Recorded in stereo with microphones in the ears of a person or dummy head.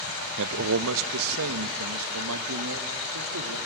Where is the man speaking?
70° right (ahead or behind), 0.5 m; by 3.6 s 85° right, 2.5 m.